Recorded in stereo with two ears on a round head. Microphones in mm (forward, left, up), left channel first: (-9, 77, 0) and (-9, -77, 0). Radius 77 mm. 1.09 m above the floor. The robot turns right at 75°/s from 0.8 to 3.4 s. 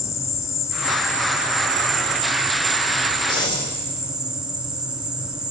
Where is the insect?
160° left, 0.7 m; by 5.5 s 5° right, 0.7 m.